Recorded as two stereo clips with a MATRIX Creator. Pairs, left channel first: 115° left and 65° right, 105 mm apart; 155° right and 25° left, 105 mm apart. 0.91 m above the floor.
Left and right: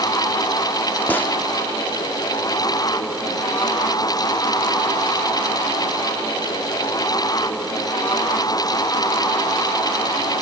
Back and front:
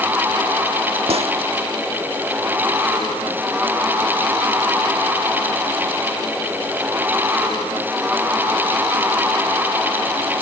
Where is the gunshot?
40° left, 1.3 m.